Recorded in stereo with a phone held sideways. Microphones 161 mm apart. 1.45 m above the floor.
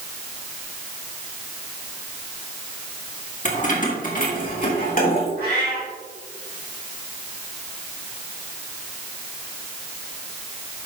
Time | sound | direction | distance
3.5 | keys jangling | 50° left (ahead or behind) | 1.7 m
5.4 | a cat meowing | 70° right (ahead or behind) | 3.5 m